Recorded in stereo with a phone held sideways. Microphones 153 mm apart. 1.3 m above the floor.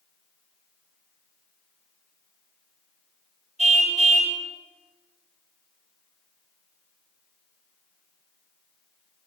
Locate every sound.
3.6 s a car horn: 45° right (ahead or behind), 3.5 m